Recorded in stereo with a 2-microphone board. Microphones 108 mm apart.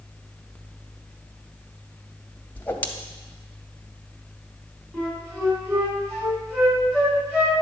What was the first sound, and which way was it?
A whoosh, 20° left (ahead or behind).